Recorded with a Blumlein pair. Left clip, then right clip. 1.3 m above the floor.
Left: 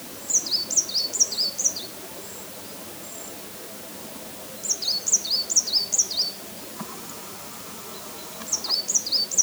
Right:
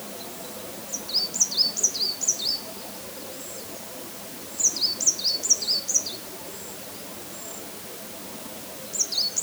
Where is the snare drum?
I don't hear a snare drum.